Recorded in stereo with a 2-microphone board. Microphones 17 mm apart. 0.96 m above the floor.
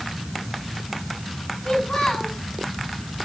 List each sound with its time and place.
1.6 s a child speaking: 60° left (ahead or behind), 5.5 m